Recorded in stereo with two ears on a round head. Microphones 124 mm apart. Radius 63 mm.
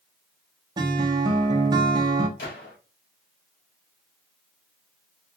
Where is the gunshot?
85° left, 2.5 m.